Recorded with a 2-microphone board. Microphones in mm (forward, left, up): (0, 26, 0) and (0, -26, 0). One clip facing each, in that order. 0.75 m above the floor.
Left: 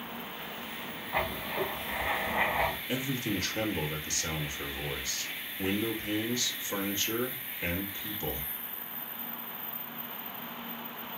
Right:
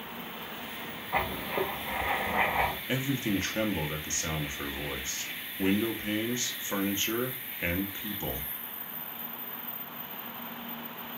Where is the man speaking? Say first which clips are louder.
Right 2 dB; 25° right (ahead or behind), 1.0 m.